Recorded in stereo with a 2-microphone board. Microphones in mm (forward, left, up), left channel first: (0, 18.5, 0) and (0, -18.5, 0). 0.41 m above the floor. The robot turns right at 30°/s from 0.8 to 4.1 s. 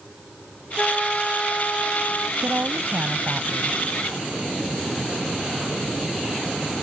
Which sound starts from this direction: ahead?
A flute, at 0.8 s.